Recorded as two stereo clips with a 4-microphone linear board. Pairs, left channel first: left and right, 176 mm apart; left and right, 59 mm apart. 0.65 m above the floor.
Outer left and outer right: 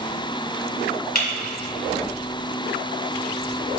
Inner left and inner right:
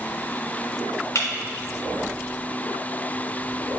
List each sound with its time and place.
1.1 s breaking glass: 60° left (ahead or behind), 1.9 m